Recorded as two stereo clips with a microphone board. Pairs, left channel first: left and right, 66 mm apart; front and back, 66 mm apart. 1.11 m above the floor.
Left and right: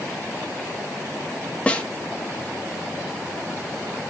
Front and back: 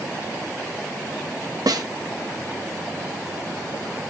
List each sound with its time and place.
1.7 s a snare drum: 160° left, 1.2 m